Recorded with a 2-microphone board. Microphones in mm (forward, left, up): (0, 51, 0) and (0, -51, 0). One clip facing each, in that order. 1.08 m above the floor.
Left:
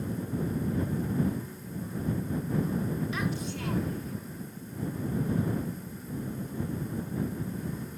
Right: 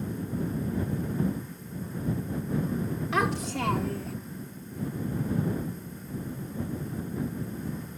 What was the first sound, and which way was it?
A child speaking, 75° right (ahead or behind).